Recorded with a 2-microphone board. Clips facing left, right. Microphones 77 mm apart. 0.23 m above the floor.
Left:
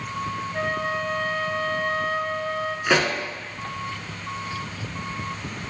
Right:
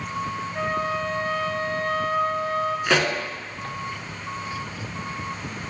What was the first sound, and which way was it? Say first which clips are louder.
A flute: right 1 dB; 35° left (ahead or behind).